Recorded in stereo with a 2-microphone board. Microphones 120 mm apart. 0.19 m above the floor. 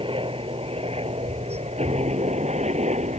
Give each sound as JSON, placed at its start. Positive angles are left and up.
{"t": 0.0, "sound": "a helicopter", "side_deg": -50}